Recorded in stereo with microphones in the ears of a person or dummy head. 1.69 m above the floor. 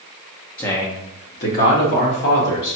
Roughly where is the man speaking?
Centre.